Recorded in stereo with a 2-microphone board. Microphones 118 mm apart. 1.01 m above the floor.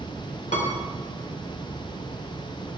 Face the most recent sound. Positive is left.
turn(degrees=75)  # may be behind; listen again after turning